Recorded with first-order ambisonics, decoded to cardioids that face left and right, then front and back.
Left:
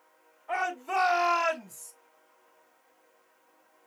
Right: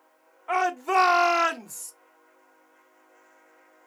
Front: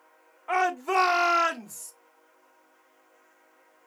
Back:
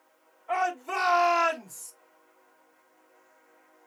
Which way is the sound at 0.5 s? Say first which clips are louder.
Right 6 dB, front 3 dB; 50° right.